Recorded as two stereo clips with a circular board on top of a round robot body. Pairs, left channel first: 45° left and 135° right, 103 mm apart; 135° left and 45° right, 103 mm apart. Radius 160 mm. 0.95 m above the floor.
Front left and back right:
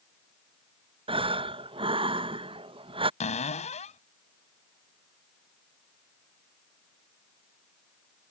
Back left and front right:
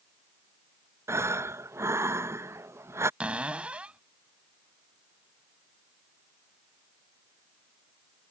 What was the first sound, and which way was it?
Breathing, 110° right.